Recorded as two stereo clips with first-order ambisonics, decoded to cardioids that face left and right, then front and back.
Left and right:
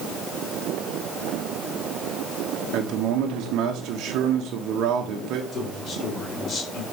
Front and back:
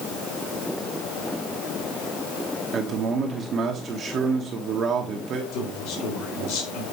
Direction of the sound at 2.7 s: 125° right.